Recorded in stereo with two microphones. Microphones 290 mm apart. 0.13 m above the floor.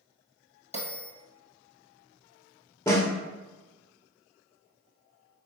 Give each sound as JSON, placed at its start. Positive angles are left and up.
{"t": 0.7, "sound": "a bell", "side_deg": 20, "distance_m": 1.3}
{"t": 2.9, "sound": "a snare drum", "side_deg": 10, "distance_m": 0.9}